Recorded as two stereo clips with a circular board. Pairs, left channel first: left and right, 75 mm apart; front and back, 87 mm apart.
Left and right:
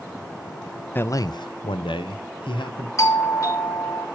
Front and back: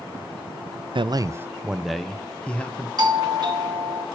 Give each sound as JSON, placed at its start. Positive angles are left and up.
{"t": 0.9, "sound": "a man speaking", "azimuth_deg": 155, "distance_m": 0.5}
{"t": 3.0, "sound": "a doorbell", "azimuth_deg": 140, "distance_m": 2.0}